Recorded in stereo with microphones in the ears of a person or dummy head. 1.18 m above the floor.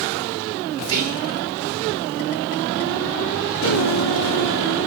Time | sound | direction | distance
0.8 | whispering | 80° right | 3 m
3.6 | a piano | 80° left | 1.4 m